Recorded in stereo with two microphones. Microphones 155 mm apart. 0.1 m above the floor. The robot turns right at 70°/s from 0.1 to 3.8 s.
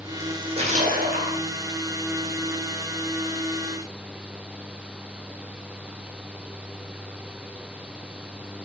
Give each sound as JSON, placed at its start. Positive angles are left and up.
{"t": 0.2, "sound": "a splash", "azimuth_deg": -165, "distance_m": 4.0}